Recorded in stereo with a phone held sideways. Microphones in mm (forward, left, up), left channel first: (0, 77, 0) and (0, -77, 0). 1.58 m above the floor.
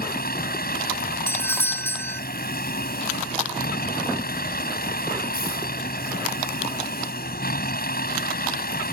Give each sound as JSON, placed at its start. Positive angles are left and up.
{"t": 0.0, "sound": "a vehicle", "side_deg": 85}
{"t": 1.3, "sound": "a doorbell", "side_deg": 15}